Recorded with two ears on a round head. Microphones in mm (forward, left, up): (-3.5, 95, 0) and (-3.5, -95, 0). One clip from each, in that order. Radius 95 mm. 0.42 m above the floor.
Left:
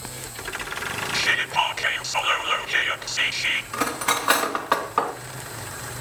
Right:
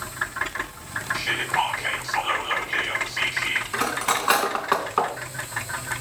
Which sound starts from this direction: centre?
Cutlery clinking, at 3.7 s.